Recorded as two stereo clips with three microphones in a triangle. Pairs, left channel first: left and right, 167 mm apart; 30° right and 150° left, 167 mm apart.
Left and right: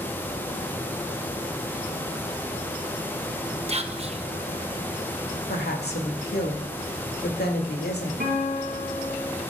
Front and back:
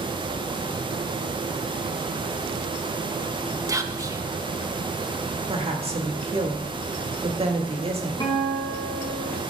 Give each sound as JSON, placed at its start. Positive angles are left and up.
{"t": 3.7, "sound": "whispering", "azimuth_deg": -140, "distance_m": 1.0}
{"t": 5.5, "sound": "a woman speaking", "azimuth_deg": 95, "distance_m": 1.9}
{"t": 8.2, "sound": "a guitar", "azimuth_deg": -95, "distance_m": 4.0}